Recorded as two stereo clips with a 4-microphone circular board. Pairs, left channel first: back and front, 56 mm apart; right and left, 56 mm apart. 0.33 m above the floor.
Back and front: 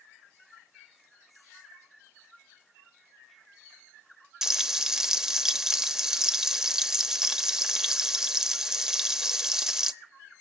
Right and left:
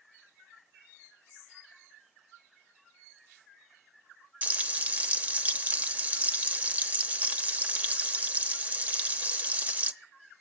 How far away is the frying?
About 0.8 m.